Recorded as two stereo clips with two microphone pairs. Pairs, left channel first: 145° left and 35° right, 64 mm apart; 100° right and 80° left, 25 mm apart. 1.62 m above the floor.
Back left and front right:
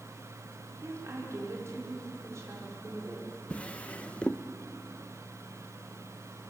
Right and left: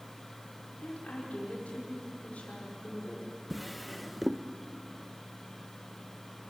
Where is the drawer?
170° left, 0.7 m.